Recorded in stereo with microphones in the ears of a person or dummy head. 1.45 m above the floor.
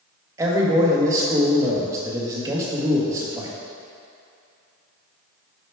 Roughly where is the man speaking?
Centre.